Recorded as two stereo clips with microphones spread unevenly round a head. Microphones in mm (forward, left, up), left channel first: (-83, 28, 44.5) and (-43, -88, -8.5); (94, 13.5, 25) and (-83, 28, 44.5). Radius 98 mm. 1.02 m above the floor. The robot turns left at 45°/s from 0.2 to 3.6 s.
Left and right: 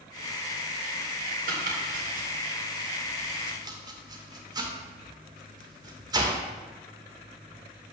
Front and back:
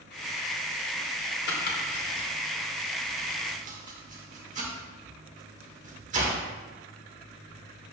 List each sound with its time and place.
1.5 s chopping: 35° right, 2 m; by 6.4 s 130° right, 2 m